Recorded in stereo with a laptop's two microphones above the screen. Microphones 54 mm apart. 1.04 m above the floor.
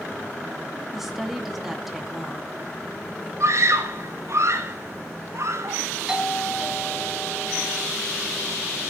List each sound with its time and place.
0.9 s a woman speaking: 5° right (ahead or behind), 2.5 m
3.4 s a scream: 60° right (ahead or behind), 4 m
6.1 s a doorbell: 10° right (ahead or behind), 2.5 m